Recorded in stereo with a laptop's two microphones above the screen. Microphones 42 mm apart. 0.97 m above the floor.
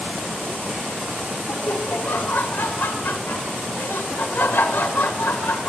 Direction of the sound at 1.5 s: 80° left.